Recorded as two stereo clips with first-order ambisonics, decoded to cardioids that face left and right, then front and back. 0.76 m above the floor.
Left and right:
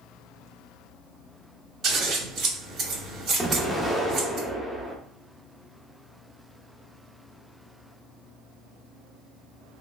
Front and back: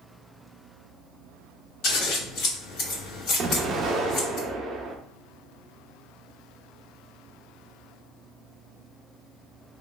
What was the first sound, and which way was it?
Scissors, 35° right.